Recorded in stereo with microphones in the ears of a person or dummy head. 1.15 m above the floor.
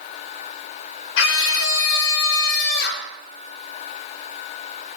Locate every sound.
1.2 s a scream: 85° left, 5 m; by 3.1 s 70° left (ahead or behind), 4.5 m